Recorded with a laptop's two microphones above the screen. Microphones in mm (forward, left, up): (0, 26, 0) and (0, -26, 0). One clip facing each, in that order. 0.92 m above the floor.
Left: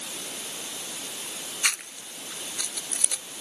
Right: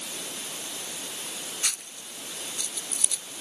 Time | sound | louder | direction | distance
1.6 | chewing | left 6 dB | 55° left (ahead or behind) | ?